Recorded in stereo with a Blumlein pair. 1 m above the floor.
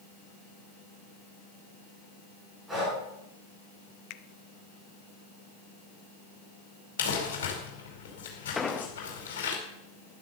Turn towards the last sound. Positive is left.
turn(degrees=15)